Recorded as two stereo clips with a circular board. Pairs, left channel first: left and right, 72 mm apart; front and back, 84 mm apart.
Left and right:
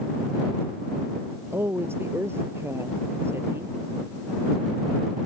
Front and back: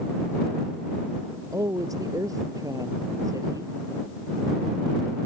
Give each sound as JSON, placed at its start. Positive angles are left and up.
{"t": 1.5, "sound": "a woman speaking", "azimuth_deg": -140}